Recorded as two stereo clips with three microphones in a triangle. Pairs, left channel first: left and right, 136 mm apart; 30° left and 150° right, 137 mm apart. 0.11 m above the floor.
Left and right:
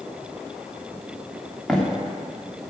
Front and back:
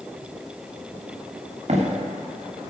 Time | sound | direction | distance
1.7 | footsteps | 170° left | 2.5 m